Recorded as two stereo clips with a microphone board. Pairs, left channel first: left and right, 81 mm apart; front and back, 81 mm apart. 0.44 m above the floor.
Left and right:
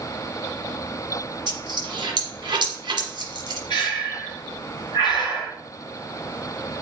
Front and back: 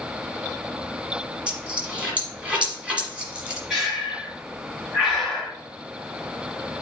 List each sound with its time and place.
1.5 s a dropped coin: 105° right, 1.3 m
3.7 s breathing: 90° left, 1.8 m